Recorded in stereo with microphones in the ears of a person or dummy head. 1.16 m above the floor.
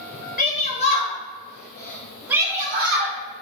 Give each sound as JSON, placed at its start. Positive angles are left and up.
{"t": 0.4, "sound": "a shout", "side_deg": 35, "distance_m": 0.9}